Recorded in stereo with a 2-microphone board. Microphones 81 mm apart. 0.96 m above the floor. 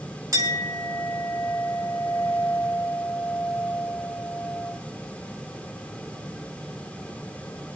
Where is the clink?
40° right (ahead or behind), 5 m.